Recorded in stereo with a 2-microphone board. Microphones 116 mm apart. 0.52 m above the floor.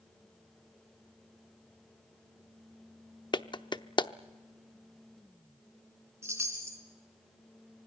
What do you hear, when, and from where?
3.3 s a clap: 40° left (ahead or behind), 0.7 m
6.2 s a chime: 25° right (ahead or behind), 3.5 m